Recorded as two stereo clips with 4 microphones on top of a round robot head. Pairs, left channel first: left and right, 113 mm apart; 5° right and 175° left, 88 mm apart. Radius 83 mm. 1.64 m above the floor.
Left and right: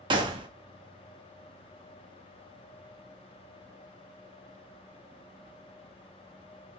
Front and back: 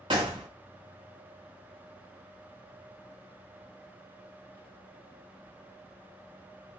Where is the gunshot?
130° right, 0.6 m.